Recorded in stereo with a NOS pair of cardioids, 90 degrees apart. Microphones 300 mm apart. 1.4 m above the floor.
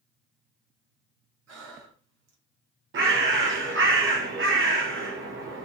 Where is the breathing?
55° right, 0.9 m.